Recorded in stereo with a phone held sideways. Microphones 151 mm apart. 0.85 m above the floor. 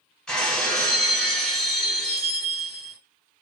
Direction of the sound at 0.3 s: 5° left (ahead or behind).